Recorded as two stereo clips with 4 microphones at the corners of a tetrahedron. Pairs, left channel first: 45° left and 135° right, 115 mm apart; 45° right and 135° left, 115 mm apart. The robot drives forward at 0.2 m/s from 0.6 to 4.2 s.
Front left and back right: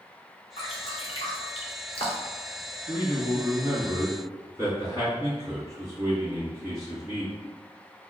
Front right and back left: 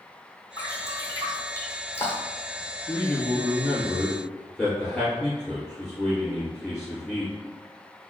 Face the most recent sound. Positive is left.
turn(degrees=-140)